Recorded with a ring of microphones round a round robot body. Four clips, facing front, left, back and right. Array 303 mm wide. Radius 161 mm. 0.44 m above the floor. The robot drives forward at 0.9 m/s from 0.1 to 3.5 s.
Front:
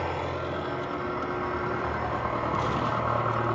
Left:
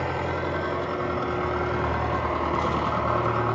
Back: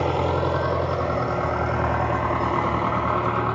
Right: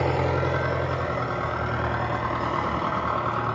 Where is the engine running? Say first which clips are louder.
Right 3 dB, back 8 dB; 140° right, 1.1 m; by 3.6 s 170° right, 4 m.